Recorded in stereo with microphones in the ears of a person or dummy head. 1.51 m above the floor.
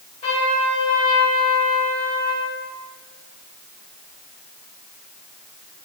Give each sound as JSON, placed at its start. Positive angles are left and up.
{"t": 0.2, "sound": "a trumpet", "side_deg": 35, "distance_m": 1.6}